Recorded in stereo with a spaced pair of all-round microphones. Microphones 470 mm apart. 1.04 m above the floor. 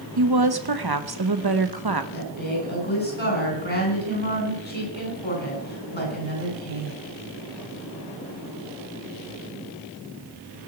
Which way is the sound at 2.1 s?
75° left (ahead or behind).